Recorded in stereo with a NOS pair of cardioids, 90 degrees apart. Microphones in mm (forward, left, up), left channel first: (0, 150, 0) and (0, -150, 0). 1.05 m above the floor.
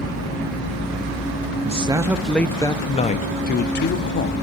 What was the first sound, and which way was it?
A man speaking, 20° right.